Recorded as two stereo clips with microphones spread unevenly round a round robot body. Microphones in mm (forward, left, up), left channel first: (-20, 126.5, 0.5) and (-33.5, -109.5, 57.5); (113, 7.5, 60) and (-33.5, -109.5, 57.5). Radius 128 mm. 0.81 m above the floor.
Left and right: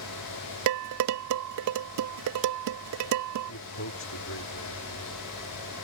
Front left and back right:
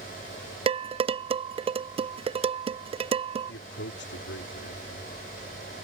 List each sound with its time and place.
0.7 s dishes clattering: 80° right
3.5 s a man speaking: 65° left